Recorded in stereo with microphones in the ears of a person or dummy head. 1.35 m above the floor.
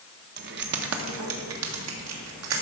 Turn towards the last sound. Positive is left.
turn(degrees=-85)